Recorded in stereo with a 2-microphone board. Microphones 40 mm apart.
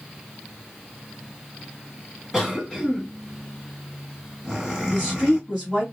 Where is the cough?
15° right (ahead or behind), 2.5 m.